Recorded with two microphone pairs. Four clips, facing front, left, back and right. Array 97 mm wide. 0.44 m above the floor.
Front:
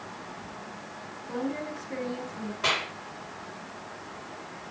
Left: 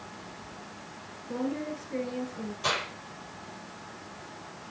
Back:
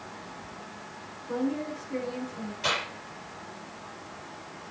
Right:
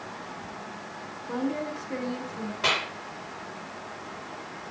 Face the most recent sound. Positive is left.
turn(degrees=-70)